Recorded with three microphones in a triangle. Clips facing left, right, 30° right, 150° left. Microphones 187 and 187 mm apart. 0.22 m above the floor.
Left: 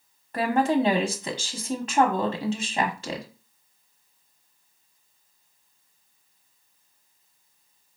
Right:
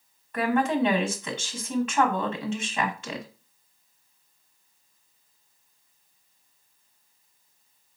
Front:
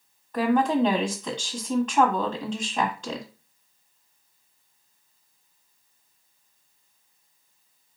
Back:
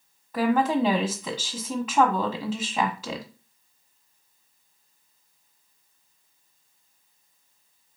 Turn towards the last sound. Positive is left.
turn(degrees=70)